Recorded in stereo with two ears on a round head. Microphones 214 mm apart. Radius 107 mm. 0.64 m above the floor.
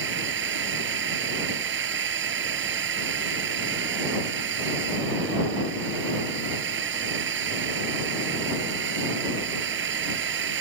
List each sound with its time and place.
0.0 s a drone: 55° right (ahead or behind)